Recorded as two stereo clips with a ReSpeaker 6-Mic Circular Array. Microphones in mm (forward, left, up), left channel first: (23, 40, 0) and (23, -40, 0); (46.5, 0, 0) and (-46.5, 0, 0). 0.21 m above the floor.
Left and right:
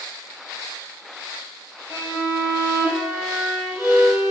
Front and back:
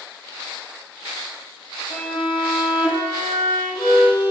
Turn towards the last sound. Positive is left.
turn(degrees=45)